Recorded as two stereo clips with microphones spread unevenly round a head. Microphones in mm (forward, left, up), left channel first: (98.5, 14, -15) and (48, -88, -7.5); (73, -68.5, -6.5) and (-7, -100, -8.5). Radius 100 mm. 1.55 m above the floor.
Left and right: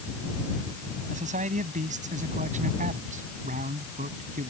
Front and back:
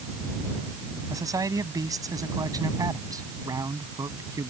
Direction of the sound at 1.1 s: 110° right.